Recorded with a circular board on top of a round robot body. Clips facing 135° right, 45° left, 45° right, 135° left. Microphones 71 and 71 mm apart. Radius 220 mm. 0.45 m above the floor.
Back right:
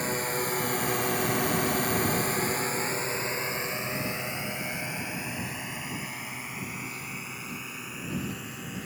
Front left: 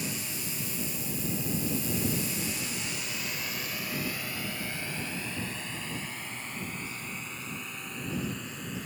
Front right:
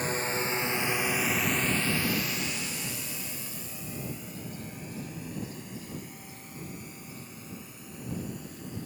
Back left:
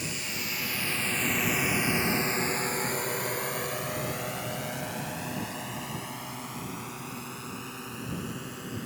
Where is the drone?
95° right; by 8.9 s 140° left.